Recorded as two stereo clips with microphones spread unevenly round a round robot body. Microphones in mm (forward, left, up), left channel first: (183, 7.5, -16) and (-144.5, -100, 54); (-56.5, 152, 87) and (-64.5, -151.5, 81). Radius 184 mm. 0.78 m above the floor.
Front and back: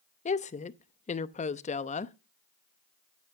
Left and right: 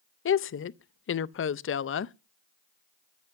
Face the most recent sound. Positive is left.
turn(degrees=60)